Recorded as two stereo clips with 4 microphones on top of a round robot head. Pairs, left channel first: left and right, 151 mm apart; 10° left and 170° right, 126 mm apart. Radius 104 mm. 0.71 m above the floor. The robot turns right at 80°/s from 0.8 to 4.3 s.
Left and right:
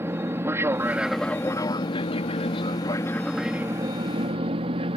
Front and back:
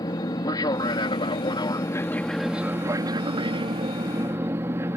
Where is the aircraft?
25° right; by 5.0 s 105° right.